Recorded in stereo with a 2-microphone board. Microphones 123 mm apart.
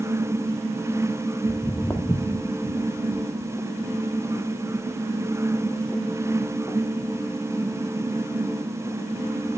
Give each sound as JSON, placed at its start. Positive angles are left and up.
{"t": 1.5, "sound": "footsteps", "side_deg": 20, "distance_m": 1.5}